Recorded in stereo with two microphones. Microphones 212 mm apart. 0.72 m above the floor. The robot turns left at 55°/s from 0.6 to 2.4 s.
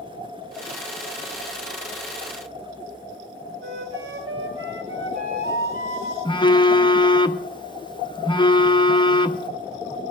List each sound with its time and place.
3.6 s a flute: 80° right, 2.5 m
6.2 s a phone buzzing: 20° left (ahead or behind), 0.7 m